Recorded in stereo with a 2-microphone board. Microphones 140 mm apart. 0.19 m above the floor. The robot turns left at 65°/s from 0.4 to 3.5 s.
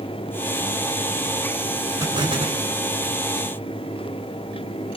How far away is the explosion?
About 1.8 m.